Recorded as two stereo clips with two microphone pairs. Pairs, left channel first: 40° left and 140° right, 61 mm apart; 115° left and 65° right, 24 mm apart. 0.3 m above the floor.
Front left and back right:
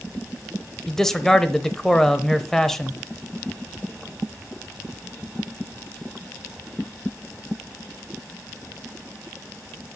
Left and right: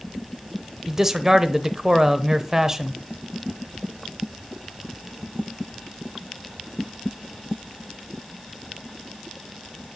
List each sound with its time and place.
0.9 s a man speaking: 35° right, 0.9 m